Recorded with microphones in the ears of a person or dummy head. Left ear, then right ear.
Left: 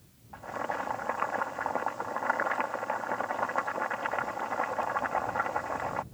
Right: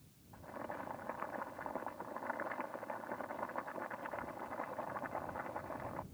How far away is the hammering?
I don't hear hammering.